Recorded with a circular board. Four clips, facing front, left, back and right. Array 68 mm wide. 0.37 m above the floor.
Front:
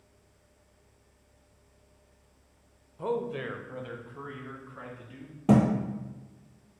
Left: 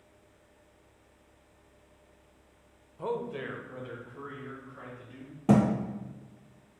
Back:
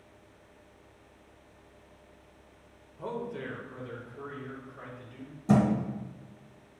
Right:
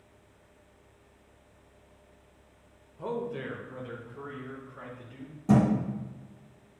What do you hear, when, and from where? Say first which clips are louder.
3.0 s a man speaking: even, front 5 dB; 45° left, 0.8 m; by 5.3 s straight ahead, 4 m
5.5 s a thud: even, front 2 dB; 40° left, 2 m